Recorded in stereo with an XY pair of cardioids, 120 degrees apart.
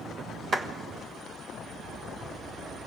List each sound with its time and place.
0.5 s a clap: 40° right, 1.4 m